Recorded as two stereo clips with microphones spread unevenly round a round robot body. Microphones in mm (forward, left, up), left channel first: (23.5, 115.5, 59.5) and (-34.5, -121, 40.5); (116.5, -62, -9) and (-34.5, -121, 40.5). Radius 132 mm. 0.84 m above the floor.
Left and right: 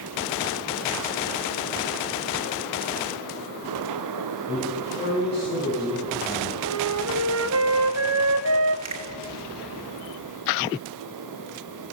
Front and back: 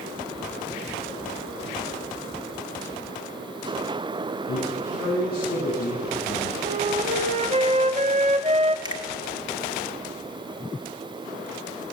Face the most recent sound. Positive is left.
turn(degrees=-90)